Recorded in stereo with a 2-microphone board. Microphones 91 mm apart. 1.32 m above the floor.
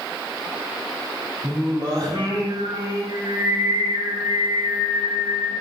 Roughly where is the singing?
Right.